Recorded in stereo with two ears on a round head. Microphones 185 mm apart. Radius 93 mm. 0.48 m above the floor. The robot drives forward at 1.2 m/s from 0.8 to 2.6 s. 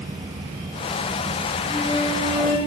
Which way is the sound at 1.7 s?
30° right (ahead or behind).